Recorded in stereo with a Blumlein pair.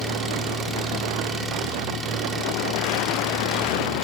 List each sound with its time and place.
0.0 s an engine running: 15° right, 2.5 m